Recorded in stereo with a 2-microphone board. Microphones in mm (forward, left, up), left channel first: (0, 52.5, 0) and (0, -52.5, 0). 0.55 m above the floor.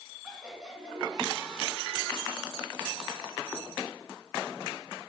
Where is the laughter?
5° right (ahead or behind), 4.5 m.